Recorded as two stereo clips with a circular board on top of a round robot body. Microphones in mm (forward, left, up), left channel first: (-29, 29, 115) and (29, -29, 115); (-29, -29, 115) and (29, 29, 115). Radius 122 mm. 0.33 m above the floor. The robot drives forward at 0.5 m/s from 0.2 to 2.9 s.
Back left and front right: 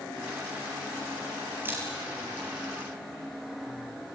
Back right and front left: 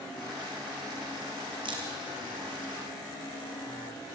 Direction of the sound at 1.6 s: 20° left.